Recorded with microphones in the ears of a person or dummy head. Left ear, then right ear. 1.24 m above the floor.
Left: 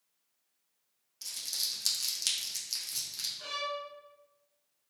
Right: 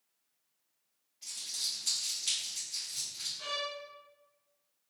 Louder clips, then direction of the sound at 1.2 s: Left 2 dB; 80° left.